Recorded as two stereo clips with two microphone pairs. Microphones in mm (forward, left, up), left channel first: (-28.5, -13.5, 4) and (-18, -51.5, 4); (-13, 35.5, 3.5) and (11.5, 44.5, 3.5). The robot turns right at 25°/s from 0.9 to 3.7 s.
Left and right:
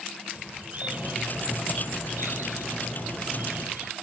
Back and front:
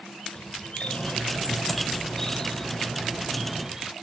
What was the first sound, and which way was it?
A bird, 125° right.